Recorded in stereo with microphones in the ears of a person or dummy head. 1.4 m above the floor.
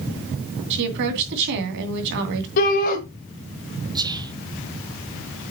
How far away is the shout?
About 1.9 m.